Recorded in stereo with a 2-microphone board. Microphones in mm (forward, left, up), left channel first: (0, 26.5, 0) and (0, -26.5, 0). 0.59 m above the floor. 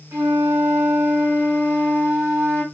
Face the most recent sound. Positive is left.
turn(degrees=-70)  # may be behind; listen again after turning